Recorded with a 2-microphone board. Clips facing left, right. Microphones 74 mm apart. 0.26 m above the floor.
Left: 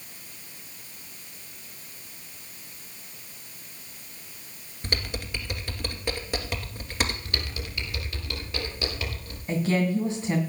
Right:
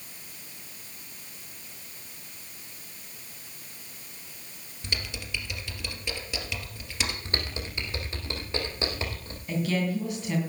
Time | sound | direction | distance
4.8 | typing on a keyboard | 45° left (ahead or behind) | 2 m
7.2 | typing on a keyboard | 30° right (ahead or behind) | 3 m
9.5 | a woman speaking | 30° left (ahead or behind) | 2.5 m